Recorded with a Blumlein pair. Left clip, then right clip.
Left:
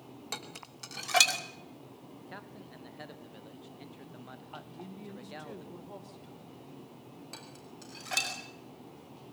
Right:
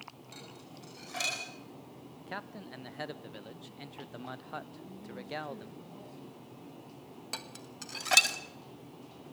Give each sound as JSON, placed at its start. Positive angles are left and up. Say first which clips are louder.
{"t": 0.3, "sound": "dishes clattering", "louder": "left 7 dB", "azimuth_deg": 35, "distance_m": 2.5}
{"t": 2.2, "sound": "a man speaking", "louder": "right 7 dB", "azimuth_deg": -20, "distance_m": 1.0}
{"t": 4.7, "sound": "a woman speaking", "louder": "left 1 dB", "azimuth_deg": 30, "distance_m": 4.5}
{"t": 7.3, "sound": "dishes clattering", "louder": "right 8 dB", "azimuth_deg": -65, "distance_m": 2.5}